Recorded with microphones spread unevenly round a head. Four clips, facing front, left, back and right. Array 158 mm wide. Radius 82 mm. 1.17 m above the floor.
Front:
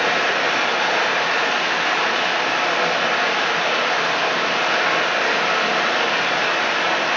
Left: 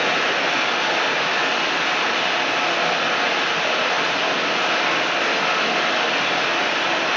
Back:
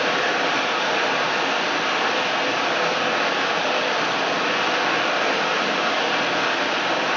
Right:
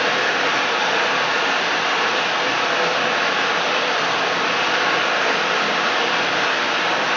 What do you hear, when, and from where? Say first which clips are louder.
0.0 s running water: right 1 dB, front 2 dB; 30° right, 1.8 m